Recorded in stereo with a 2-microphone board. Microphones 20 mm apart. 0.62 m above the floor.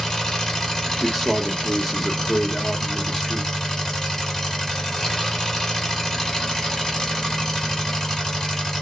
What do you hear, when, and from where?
0.0 s an engine running: 30° left (ahead or behind), 1.3 m
1.0 s a man speaking: 15° left (ahead or behind), 0.8 m